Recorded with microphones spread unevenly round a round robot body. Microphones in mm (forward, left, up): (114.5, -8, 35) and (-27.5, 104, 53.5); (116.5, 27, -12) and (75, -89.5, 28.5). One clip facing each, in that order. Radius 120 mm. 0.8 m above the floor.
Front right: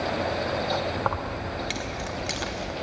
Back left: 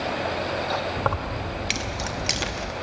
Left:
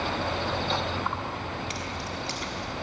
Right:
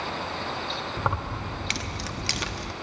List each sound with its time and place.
1.0 s keys jangling: 145° right, 0.8 m